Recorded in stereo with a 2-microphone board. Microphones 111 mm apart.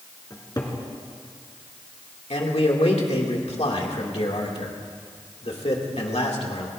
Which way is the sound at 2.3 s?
70° left (ahead or behind).